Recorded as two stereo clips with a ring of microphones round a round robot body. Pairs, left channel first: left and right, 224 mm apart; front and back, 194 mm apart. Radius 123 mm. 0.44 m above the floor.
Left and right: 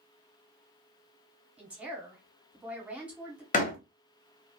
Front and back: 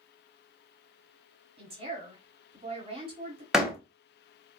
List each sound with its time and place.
1.6 s a woman speaking: 170° right, 1.2 m
3.5 s a door slam: 95° left, 1.0 m